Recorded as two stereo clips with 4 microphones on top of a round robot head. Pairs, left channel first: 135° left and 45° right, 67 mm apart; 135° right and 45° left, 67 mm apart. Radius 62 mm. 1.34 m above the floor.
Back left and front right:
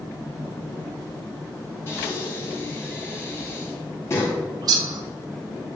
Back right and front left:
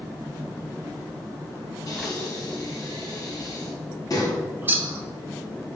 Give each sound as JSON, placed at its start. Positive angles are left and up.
{"t": 1.9, "sound": "breathing", "azimuth_deg": -175, "distance_m": 1.6}
{"t": 4.6, "sound": "a bird", "azimuth_deg": -20, "distance_m": 0.7}